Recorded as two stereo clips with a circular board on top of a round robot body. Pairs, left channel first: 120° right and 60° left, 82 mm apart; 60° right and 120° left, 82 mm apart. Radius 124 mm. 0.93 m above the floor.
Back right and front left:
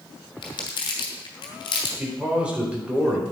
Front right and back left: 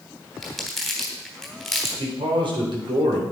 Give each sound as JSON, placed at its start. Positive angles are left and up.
{"t": 0.4, "sound": "crumpling", "azimuth_deg": -150, "distance_m": 3.0}
{"t": 2.0, "sound": "a man speaking", "azimuth_deg": 140, "distance_m": 4.5}